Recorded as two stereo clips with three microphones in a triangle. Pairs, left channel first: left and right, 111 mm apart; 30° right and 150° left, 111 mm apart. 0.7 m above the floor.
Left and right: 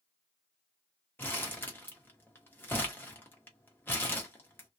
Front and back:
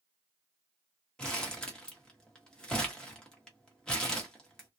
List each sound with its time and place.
1.2 s crumpling: 45° left, 1.2 m